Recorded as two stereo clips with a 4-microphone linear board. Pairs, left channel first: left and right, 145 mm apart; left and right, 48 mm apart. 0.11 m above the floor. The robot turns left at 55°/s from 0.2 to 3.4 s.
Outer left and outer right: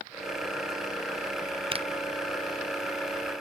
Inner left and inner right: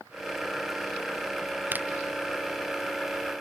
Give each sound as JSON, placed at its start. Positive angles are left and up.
{"t": 1.7, "sound": "a finger snap", "side_deg": -40}